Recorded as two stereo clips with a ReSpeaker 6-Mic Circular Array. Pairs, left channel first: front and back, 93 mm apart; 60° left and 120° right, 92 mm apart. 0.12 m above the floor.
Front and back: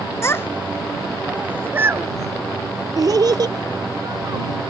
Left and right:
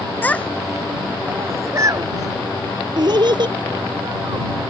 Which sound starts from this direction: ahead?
A child speaking, at 0.2 s.